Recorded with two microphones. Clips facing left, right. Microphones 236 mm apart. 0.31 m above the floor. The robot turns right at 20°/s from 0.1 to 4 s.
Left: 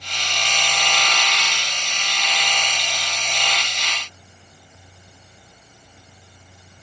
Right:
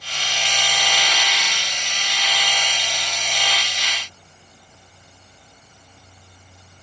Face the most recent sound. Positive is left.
No sound to turn to.